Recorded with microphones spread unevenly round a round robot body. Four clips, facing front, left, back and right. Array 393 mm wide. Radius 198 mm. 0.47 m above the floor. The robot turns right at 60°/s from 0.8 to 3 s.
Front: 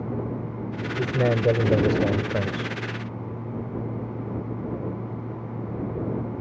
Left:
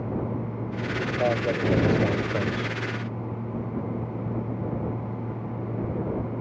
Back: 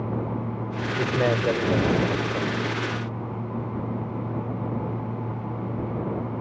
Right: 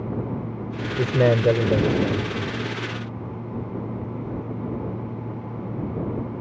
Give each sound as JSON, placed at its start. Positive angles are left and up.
{"t": 1.0, "sound": "a man speaking", "azimuth_deg": -85}